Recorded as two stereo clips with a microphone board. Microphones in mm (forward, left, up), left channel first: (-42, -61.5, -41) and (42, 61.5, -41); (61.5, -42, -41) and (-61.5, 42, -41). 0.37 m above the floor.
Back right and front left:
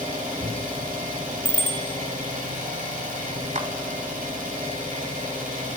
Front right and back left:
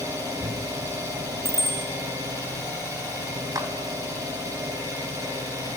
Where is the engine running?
80° left, 8.5 m.